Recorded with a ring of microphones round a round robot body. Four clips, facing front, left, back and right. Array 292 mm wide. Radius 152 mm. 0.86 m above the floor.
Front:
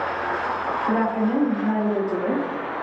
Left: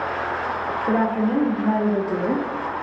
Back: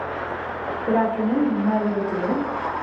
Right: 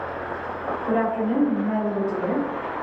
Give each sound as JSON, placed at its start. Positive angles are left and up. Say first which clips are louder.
{"t": 0.9, "sound": "a woman speaking", "louder": "left 2 dB, back 2 dB", "azimuth_deg": 145, "distance_m": 0.7}